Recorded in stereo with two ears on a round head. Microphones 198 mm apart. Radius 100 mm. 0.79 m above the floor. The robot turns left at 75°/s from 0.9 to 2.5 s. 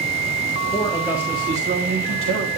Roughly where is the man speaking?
Ahead.